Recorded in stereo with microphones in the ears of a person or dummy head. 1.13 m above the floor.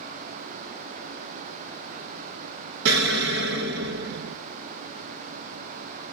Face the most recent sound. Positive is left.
turn(degrees=-55)  # may be behind; listen again after turning